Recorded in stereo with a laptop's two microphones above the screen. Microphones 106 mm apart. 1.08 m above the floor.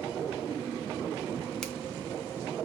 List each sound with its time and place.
1.6 s a finger snap: 5° left (ahead or behind), 0.5 m